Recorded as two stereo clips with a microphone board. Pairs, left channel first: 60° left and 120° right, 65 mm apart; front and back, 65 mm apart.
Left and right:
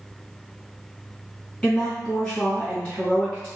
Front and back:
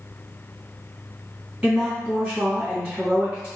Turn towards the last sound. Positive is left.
turn(degrees=100)